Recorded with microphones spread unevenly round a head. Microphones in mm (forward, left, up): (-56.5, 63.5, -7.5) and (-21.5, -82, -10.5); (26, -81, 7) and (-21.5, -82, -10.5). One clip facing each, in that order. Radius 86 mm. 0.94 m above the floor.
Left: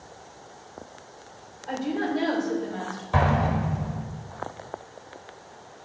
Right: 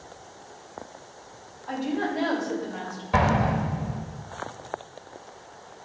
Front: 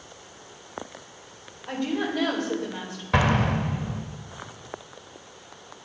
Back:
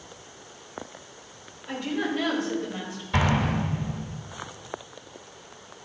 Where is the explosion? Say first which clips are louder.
Right 1 dB, front 2 dB; straight ahead, 1.2 m.